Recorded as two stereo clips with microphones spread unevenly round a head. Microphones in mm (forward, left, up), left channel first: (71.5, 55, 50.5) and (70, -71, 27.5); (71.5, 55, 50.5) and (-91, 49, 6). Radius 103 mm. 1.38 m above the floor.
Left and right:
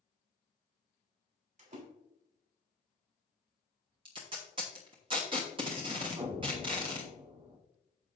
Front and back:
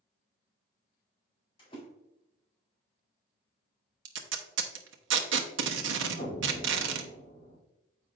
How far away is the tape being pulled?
About 1.0 m.